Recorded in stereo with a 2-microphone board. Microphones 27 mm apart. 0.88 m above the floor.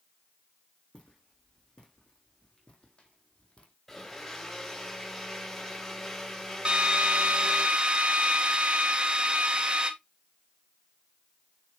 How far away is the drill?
About 1.4 m.